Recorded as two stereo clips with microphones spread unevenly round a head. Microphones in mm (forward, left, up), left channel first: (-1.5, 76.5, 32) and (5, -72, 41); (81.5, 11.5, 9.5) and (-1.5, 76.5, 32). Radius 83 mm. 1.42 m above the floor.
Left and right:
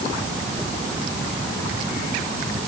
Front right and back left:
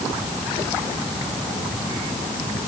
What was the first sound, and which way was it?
Only background noise.